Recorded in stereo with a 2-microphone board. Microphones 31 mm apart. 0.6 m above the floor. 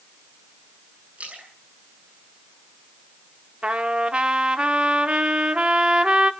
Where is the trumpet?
35° right (ahead or behind), 1.2 m.